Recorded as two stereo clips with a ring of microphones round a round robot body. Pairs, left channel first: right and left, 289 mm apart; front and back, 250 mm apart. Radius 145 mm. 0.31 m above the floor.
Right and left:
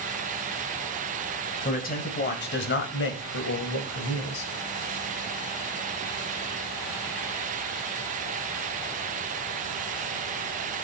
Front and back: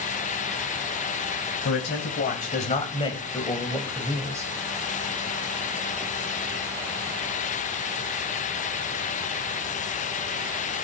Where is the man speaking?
35° right, 2.5 m; by 4.5 s 105° right, 2.5 m.